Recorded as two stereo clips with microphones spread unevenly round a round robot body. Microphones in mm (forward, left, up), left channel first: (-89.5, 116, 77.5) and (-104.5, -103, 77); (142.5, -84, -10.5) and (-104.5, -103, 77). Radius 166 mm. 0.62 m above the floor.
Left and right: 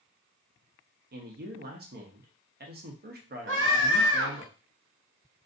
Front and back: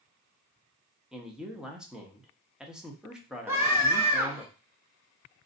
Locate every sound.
1.1 s a man speaking: 70° right, 1.1 m
3.5 s a scream: 85° right, 2.0 m